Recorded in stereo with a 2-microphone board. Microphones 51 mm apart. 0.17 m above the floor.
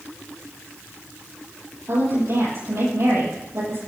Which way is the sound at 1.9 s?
60° right (ahead or behind).